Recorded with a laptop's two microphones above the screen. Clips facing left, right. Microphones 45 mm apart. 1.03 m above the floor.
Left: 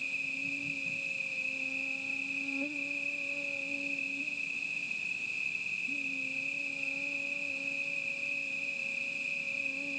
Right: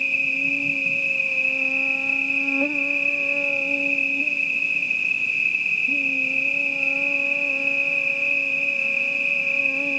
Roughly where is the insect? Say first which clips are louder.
Right 14 dB; right.